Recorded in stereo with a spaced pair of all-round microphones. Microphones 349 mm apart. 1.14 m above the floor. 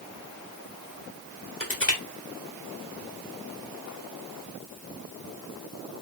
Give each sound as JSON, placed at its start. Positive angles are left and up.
{"t": 1.6, "sound": "crushing", "side_deg": 35, "distance_m": 1.3}